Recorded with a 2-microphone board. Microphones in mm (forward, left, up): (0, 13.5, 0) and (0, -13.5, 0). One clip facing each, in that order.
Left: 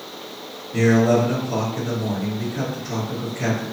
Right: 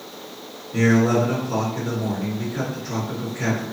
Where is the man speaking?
30° right (ahead or behind), 1.8 m.